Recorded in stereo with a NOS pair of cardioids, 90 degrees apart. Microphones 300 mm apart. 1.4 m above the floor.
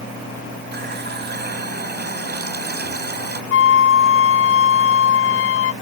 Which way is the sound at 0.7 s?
35° right.